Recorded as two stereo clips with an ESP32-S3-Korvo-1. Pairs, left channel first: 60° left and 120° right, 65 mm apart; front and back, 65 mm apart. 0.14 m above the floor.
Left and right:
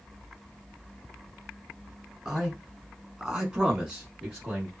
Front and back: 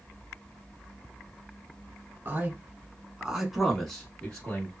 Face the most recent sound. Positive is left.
turn(degrees=-45)